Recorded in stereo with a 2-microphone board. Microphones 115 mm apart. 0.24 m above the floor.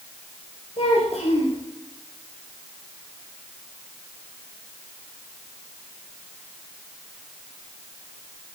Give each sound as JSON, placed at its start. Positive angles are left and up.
{"t": 0.8, "sound": "a child speaking", "side_deg": 65, "distance_m": 3.5}